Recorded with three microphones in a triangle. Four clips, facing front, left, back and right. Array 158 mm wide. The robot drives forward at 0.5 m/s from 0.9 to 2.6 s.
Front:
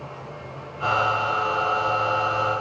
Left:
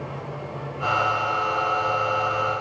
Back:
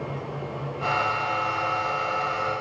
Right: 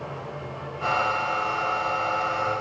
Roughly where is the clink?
No clink in this recording.